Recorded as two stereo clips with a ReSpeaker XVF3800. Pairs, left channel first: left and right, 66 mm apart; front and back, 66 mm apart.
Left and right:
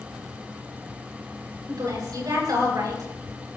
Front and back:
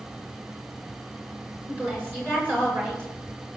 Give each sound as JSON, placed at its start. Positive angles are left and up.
{"t": 1.7, "sound": "a woman speaking", "azimuth_deg": -120, "distance_m": 9.5}